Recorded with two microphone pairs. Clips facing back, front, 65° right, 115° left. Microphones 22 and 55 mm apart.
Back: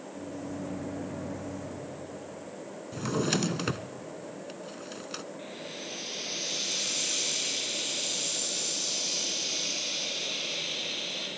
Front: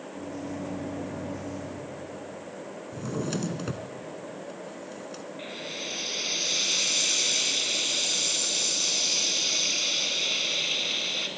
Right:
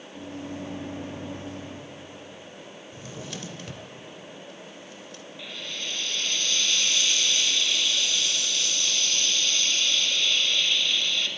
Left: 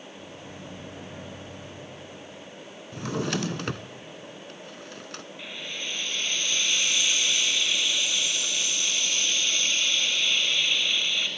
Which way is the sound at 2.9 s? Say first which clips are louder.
Back 3 dB, left 11 dB; 135° left.